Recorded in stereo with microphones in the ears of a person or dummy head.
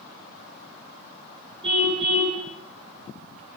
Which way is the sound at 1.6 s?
25° right (ahead or behind).